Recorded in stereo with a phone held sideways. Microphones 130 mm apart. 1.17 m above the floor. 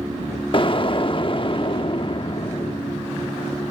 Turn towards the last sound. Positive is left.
turn(degrees=40)  # may be behind; listen again after turning